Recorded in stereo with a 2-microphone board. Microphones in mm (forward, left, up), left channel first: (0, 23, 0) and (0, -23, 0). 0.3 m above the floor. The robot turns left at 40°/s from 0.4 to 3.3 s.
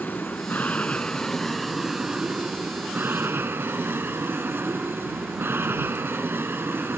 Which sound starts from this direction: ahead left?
An aircraft, at 0.0 s.